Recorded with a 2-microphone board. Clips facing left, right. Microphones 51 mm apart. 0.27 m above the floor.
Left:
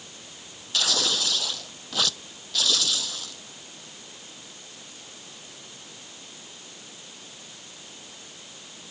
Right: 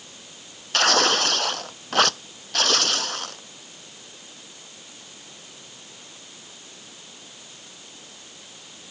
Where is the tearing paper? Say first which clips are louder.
Right 8 dB; 55° right (ahead or behind).